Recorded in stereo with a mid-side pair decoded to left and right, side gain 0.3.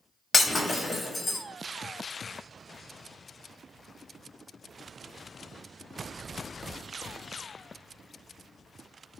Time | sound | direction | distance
0.3 | breaking glass | 50° left | 1.7 m